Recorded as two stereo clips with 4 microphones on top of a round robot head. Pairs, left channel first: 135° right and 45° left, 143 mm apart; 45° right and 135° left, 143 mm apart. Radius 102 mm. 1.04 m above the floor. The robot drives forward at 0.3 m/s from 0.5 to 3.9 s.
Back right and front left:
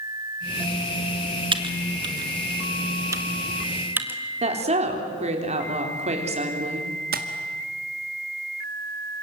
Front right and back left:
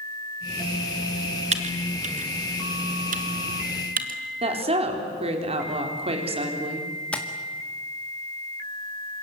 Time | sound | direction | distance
1.5 | typing on a keyboard | 95° left | 1.6 m
4.4 | a woman speaking | 90° left | 4 m
7.1 | tapping | 35° left | 2 m